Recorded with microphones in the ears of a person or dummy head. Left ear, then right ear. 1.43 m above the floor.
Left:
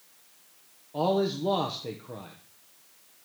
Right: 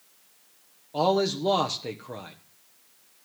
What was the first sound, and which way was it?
A man speaking, 75° right (ahead or behind).